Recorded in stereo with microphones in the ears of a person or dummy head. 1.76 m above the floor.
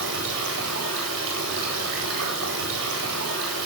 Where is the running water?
70° right (ahead or behind), 9.5 m.